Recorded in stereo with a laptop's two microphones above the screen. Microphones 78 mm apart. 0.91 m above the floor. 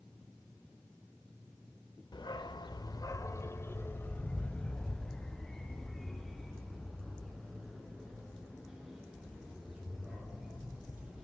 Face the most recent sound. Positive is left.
turn(degrees=-10)  # may be behind; listen again after turning